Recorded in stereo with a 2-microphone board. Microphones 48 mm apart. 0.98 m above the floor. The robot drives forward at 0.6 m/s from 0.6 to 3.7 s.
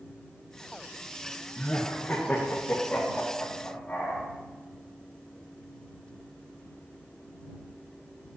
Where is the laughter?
25° left (ahead or behind), 1.0 m; by 4.2 s 10° left (ahead or behind), 2 m.